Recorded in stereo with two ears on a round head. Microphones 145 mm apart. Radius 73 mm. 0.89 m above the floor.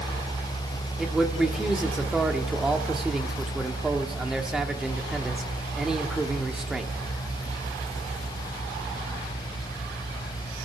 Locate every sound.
1.0 s a man speaking: 5° right (ahead or behind), 1.8 m